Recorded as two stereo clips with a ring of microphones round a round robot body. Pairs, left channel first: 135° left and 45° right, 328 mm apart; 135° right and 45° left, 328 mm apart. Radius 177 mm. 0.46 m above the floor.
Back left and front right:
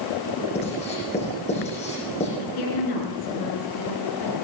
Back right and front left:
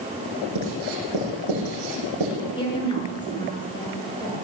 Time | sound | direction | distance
0.6 | writing | 65° left | 8 m
2.4 | a woman speaking | 150° left | 6.5 m